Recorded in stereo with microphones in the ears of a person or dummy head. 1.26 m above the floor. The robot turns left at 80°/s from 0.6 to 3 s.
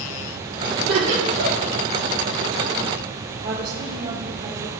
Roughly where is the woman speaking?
Right.